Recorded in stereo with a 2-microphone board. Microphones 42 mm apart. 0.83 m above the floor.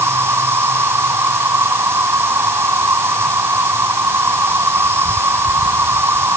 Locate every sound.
0.0 s an insect: 75° right (ahead or behind)